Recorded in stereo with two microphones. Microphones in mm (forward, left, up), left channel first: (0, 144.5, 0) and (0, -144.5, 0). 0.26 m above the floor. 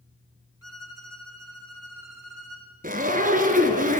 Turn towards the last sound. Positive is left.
turn(degrees=-30)  # may be behind; listen again after turning